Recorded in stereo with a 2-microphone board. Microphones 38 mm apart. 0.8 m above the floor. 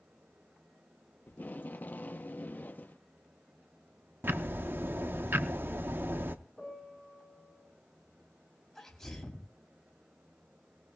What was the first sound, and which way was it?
Tape being pulled, 50° left (ahead or behind).